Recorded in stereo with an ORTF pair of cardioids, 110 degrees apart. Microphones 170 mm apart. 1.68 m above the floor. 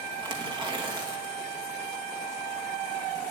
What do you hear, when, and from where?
0.2 s tearing paper: 25° right, 2 m